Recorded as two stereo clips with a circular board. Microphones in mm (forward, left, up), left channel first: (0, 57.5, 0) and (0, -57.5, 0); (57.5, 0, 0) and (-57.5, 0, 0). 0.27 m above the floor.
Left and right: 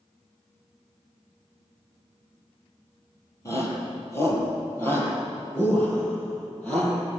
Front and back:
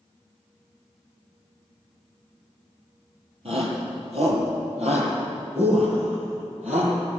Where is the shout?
150° left, 6.5 m; by 7.0 s 170° left, 8.5 m.